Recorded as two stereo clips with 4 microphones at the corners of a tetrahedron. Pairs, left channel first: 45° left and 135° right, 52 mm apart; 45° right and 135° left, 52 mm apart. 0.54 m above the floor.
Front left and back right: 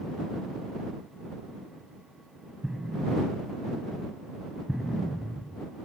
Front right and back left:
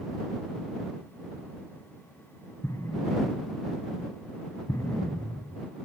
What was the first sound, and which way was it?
An explosion, 55° right.